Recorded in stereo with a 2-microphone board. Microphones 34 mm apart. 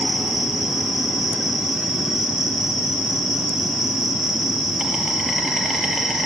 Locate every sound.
0.0 s an insect: 5° right (ahead or behind), 4.5 m